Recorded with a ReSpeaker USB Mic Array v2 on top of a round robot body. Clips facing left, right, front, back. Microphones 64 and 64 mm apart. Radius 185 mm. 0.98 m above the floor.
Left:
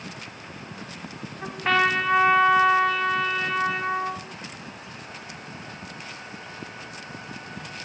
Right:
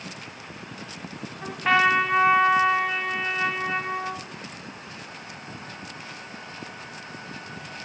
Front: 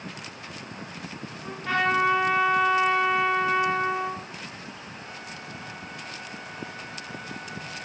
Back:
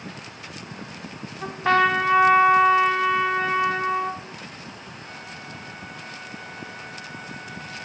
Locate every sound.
1.4 s a trumpet: 175° right, 1.8 m